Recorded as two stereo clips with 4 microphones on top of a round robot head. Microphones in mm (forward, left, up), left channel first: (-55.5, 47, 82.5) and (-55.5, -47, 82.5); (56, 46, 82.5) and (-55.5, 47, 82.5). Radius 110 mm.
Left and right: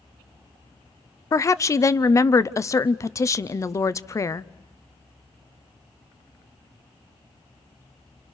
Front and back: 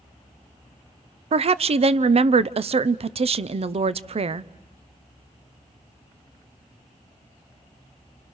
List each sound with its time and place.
1.3 s a woman speaking: 150° left, 0.7 m